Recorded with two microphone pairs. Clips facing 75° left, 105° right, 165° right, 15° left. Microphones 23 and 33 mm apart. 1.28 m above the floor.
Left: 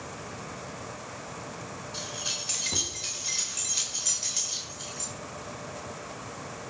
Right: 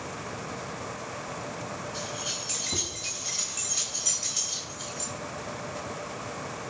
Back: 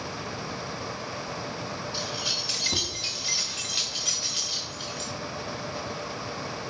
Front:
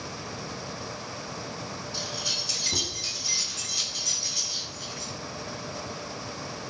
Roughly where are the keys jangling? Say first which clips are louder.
Left 3 dB, even; behind left.